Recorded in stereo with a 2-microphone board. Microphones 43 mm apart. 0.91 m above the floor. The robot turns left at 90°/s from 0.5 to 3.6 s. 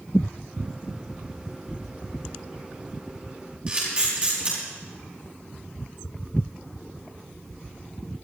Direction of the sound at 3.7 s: 25° right (ahead or behind).